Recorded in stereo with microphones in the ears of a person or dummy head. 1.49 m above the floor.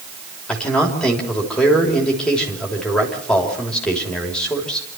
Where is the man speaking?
5° left (ahead or behind), 3 m.